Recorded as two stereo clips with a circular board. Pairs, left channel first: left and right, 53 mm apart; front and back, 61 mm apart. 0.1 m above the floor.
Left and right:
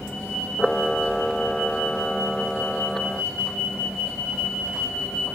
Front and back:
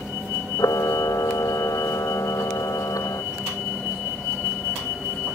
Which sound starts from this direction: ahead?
A camera shutter, at 0.6 s.